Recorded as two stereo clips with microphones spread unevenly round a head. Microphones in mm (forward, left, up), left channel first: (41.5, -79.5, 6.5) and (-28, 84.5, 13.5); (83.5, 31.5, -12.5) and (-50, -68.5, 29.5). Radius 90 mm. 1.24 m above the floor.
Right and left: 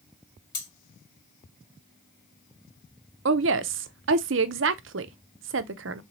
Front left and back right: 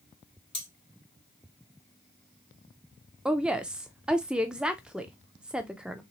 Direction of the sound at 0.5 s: 25° right.